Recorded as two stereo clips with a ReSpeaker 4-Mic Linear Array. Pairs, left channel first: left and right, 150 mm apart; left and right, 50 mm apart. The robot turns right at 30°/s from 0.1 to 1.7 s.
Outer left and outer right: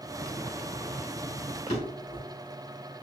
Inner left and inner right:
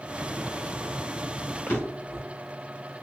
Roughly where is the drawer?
Left.